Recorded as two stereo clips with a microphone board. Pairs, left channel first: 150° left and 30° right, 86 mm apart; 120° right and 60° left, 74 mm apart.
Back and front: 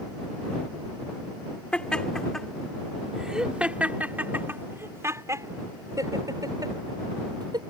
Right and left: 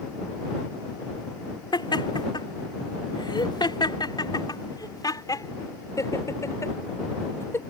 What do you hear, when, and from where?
1.7 s laughter: 130° right; by 7.6 s 65° right